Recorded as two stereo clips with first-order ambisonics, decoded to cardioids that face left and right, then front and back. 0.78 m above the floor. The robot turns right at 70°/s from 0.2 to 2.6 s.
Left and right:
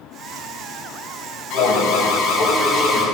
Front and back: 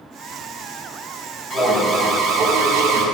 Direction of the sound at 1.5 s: 60° left.